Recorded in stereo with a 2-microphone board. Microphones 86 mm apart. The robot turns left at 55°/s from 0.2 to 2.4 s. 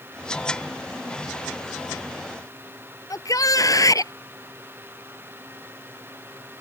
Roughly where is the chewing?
I don't hear chewing.